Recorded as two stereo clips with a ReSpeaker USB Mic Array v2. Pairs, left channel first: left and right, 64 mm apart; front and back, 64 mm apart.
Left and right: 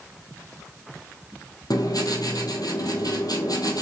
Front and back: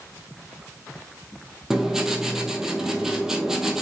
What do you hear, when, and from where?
1.7 s writing: 95° left, 1.4 m